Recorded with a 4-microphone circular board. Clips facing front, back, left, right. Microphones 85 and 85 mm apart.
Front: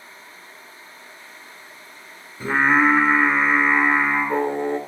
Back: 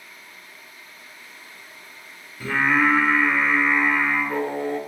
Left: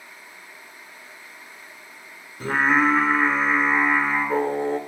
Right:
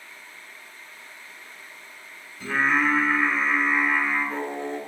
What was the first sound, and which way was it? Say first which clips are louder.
Singing: front 3 dB, left 3 dB; 60° left.